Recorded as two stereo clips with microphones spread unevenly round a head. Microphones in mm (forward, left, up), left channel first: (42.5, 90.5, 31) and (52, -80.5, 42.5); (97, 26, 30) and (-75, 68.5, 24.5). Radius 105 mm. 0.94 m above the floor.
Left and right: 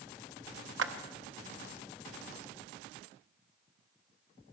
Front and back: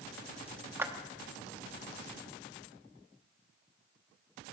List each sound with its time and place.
0.8 s a clap: 115° right, 0.9 m